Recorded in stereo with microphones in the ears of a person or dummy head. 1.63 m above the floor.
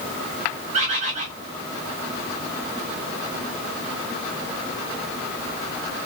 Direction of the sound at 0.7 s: 40° right (ahead or behind).